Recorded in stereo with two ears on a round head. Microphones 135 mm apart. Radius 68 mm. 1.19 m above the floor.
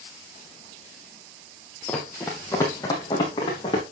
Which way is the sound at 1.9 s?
10° left (ahead or behind).